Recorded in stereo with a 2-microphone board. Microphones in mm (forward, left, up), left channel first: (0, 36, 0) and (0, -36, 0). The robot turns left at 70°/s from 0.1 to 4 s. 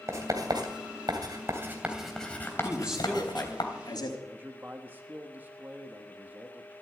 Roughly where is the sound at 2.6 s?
Behind right.